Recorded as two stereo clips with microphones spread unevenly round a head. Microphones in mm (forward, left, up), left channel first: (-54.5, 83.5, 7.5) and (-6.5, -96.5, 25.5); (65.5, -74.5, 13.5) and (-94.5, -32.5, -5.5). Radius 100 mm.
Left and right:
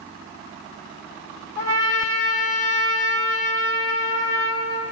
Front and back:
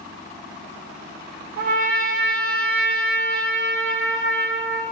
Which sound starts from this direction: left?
A trumpet, at 1.6 s.